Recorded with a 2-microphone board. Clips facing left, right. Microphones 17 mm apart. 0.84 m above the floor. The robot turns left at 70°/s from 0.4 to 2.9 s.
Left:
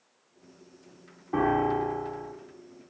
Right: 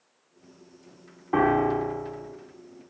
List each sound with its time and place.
1.3 s a piano: 140° right, 0.8 m; by 2.3 s 150° left, 0.8 m